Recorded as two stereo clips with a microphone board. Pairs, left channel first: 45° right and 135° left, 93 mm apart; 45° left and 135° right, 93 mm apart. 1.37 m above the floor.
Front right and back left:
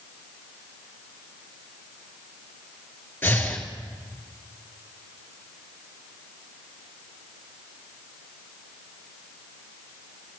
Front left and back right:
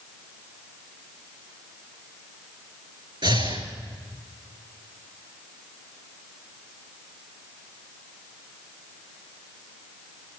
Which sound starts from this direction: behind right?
Breathing, at 3.2 s.